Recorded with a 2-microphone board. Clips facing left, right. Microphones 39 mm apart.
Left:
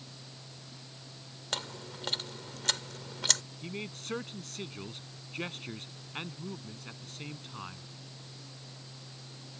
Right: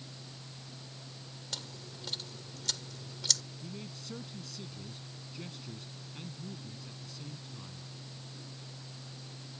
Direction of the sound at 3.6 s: 55° left (ahead or behind).